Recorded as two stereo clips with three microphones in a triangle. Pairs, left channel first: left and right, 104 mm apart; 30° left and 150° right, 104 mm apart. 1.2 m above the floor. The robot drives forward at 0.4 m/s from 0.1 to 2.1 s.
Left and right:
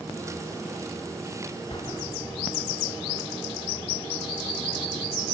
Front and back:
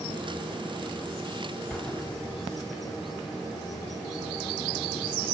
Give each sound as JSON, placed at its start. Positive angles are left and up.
{"t": 1.7, "sound": "an explosion", "azimuth_deg": 120, "distance_m": 1.3}